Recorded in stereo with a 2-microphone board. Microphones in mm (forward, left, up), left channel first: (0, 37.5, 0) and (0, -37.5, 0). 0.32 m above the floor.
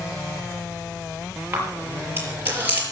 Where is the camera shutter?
30° right (ahead or behind), 6 m.